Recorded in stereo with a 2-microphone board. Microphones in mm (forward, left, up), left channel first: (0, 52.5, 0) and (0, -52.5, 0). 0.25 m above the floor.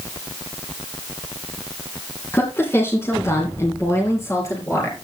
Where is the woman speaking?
20° left (ahead or behind), 3 m; by 4.9 s 30° left (ahead or behind), 4.5 m.